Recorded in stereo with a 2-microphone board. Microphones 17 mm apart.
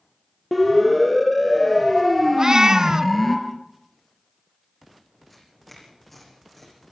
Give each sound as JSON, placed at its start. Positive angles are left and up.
{"t": 0.5, "sound": "a siren", "side_deg": 5, "distance_m": 6.5}
{"t": 2.4, "sound": "a cat meowing", "side_deg": -45, "distance_m": 0.7}
{"t": 5.3, "sound": "tearing paper", "side_deg": 10, "distance_m": 9.5}